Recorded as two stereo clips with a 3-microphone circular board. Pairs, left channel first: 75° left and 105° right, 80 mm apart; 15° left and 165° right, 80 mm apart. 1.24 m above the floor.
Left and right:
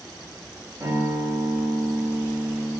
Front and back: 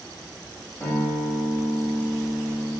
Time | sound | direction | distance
0.8 | a guitar | 60° right | 2.5 m